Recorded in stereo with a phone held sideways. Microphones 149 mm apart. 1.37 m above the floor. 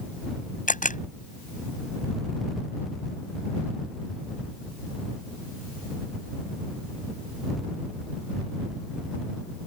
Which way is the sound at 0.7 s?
60° left (ahead or behind).